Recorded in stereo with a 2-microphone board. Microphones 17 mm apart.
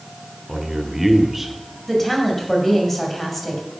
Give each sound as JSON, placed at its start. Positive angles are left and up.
{"t": 0.5, "sound": "a man speaking", "side_deg": -20, "distance_m": 1.1}
{"t": 1.9, "sound": "a woman speaking", "side_deg": 10, "distance_m": 1.9}